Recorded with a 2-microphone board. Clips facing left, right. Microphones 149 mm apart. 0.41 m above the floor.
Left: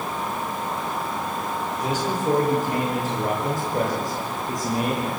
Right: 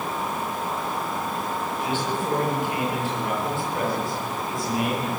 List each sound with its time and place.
1.8 s a man speaking: 45° left (ahead or behind), 9.5 m; by 5.1 s 40° left (ahead or behind), 13 m